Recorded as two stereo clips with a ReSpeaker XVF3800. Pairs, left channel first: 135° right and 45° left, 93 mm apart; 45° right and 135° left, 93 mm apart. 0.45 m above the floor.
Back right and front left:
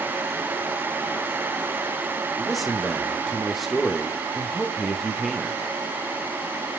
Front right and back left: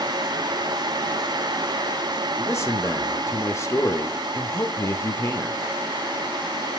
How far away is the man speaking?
About 1.0 m.